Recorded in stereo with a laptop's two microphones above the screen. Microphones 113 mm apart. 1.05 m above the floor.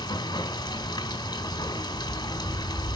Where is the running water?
35° left (ahead or behind), 1.8 m.